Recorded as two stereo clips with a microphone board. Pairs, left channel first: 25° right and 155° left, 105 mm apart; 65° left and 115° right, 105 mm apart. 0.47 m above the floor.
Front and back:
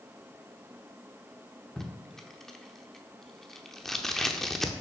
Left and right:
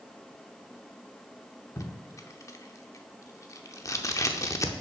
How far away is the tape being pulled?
About 0.7 m.